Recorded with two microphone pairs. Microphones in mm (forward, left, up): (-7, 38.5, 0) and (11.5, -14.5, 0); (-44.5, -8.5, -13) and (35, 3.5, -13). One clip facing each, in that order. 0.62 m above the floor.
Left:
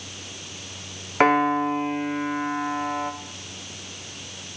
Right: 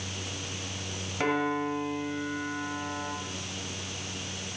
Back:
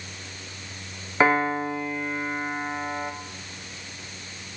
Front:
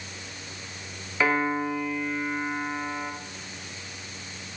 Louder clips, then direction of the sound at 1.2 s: Left 9 dB, back 3 dB; 135° left.